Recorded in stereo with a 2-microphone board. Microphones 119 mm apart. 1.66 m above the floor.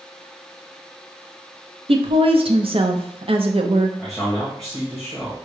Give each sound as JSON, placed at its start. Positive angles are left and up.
{"t": 1.9, "sound": "a woman speaking", "side_deg": -55, "distance_m": 0.6}
{"t": 4.0, "sound": "a man speaking", "side_deg": 5, "distance_m": 1.5}